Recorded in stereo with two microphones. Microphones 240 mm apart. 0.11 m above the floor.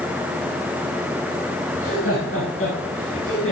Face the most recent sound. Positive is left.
turn(degrees=60)  # may be behind; listen again after turning